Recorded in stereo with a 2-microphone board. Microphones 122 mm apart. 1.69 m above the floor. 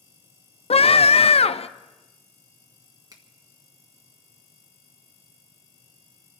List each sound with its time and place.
0.7 s a scream: 55° left (ahead or behind), 0.6 m
3.1 s a finger snap: 30° right (ahead or behind), 1.7 m